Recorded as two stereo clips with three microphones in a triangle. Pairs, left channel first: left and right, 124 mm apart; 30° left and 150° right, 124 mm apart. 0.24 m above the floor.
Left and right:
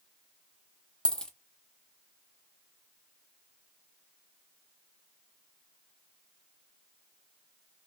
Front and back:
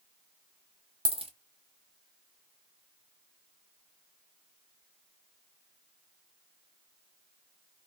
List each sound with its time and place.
1.1 s a dropped coin: 175° left, 0.7 m